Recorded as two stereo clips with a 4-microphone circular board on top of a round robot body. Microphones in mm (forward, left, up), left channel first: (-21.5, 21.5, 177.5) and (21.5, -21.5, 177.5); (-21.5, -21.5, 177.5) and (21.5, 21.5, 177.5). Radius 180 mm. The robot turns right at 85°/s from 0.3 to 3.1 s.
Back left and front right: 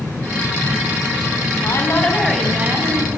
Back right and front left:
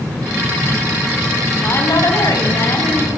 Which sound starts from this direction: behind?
A woman speaking, at 1.6 s.